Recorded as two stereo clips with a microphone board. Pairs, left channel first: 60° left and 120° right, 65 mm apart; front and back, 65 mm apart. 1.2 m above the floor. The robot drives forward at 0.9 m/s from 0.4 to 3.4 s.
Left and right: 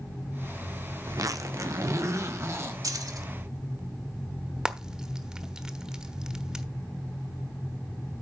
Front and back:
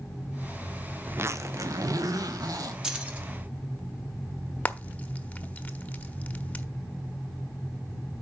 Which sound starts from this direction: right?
Keys jangling, at 2.8 s.